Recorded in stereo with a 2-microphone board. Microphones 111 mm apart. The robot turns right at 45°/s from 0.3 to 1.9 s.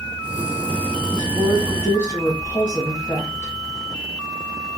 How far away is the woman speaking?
About 1.8 m.